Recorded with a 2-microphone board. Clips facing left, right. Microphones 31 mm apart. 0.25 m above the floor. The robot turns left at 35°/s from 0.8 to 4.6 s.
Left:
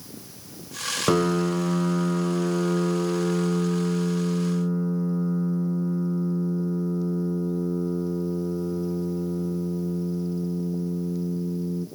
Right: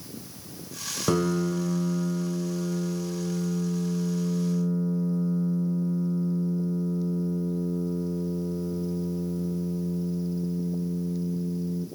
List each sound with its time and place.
1.1 s a piano: 160° left, 1.3 m; by 11.9 s 35° left, 1.3 m